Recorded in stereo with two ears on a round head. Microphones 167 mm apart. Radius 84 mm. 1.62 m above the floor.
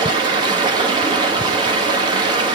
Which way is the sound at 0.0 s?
25° right (ahead or behind).